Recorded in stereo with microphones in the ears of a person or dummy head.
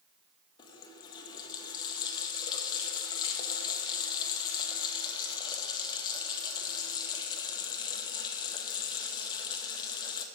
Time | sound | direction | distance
0.6 | a running tap | 25° left (ahead or behind) | 1.5 m